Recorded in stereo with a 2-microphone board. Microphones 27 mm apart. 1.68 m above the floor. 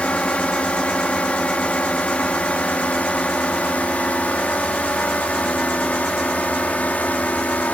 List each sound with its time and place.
0.0 s a drone: 50° left (ahead or behind); by 7.7 s 65° left (ahead or behind)